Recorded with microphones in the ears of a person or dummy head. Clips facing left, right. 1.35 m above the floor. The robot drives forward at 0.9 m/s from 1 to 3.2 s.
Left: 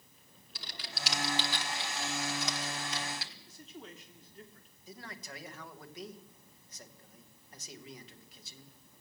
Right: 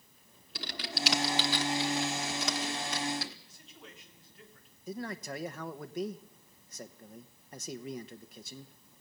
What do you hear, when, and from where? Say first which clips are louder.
0.6 s typing on a keyboard: right 8 dB; 55° right (ahead or behind), 1.6 m; by 3.4 s 45° right (ahead or behind), 2.0 m
3.5 s a man speaking: left 5 dB; 40° left (ahead or behind), 3.5 m
4.9 s a man speaking: right 10 dB; 45° right (ahead or behind), 1.1 m